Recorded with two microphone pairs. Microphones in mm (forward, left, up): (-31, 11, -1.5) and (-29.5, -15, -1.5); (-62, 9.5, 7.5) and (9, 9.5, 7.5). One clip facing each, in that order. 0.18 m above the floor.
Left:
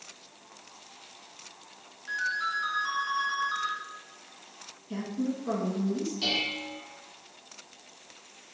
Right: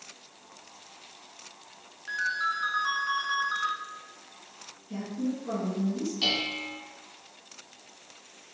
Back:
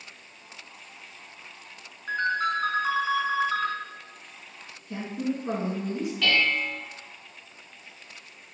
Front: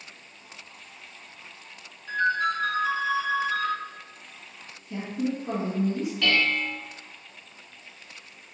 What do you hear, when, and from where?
2.1 s a ringtone: 155° right, 0.9 m
4.9 s a woman speaking: 155° left, 1.8 m
6.2 s dishes clattering: 95° right, 0.9 m